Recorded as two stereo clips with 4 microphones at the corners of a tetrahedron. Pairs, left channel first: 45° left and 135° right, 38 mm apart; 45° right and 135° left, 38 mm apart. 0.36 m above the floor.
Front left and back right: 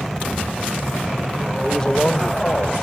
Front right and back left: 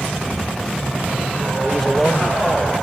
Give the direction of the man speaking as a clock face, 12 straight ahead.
1 o'clock.